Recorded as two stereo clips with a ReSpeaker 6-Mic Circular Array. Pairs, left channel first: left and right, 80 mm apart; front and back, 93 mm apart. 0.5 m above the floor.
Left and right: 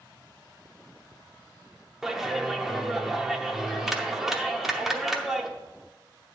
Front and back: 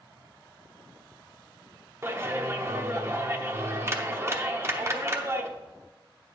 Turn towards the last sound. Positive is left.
turn(degrees=-170)